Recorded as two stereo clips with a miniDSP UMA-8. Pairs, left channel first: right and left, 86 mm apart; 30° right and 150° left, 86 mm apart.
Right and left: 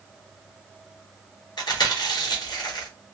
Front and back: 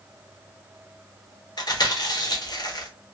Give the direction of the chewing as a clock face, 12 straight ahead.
2 o'clock.